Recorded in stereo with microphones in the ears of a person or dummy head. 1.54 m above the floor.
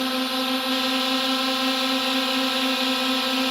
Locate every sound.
0.0 s a drone: 5° left (ahead or behind)